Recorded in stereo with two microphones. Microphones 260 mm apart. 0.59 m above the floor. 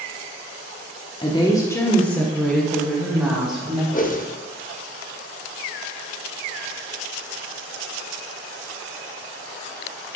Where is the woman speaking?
20° left (ahead or behind), 0.8 m; by 3.8 s 5° right (ahead or behind), 2 m.